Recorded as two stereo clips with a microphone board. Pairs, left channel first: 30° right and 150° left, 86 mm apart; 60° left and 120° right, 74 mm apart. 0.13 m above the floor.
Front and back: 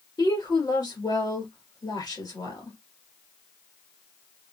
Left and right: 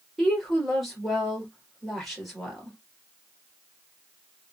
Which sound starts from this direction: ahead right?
A woman speaking, at 0.2 s.